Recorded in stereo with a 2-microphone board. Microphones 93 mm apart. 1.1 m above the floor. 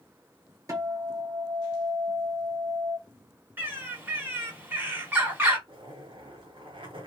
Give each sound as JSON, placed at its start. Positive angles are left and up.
{"t": 0.7, "sound": "a guitar", "side_deg": -35, "distance_m": 0.7}
{"t": 3.6, "sound": "a bird", "side_deg": -20, "distance_m": 1.0}
{"t": 5.7, "sound": "a zipper", "side_deg": -60, "distance_m": 0.8}